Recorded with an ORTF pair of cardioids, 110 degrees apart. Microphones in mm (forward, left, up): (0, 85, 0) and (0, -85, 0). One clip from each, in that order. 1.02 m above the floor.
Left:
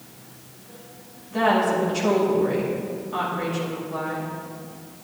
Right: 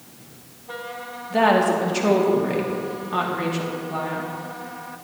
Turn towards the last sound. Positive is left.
turn(degrees=-45)